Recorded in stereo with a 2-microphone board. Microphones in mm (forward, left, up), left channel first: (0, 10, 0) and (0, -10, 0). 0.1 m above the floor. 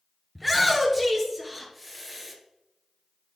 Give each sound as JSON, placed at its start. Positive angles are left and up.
{"t": 0.3, "sound": "a shout", "side_deg": -10, "distance_m": 1.8}